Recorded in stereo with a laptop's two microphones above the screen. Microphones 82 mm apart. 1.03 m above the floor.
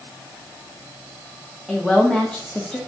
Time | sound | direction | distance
1.7 | a woman speaking | 5° left (ahead or behind) | 1.3 m